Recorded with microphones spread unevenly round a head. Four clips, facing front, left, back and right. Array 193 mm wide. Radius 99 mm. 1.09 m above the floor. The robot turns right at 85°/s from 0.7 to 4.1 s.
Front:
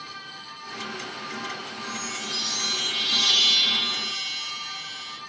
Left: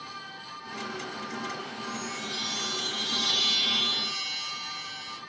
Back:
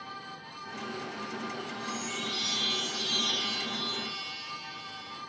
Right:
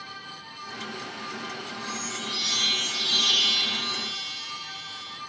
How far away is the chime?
About 0.6 m.